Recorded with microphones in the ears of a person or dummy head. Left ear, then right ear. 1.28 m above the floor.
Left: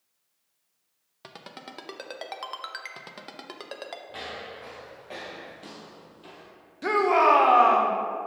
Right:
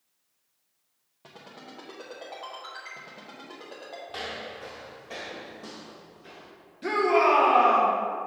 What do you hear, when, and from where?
1.2 s a ringtone: 60° left (ahead or behind), 0.7 m
4.1 s footsteps: 15° right (ahead or behind), 1.6 m; by 6.5 s 40° left (ahead or behind), 1.6 m
6.8 s a shout: 35° left (ahead or behind), 0.9 m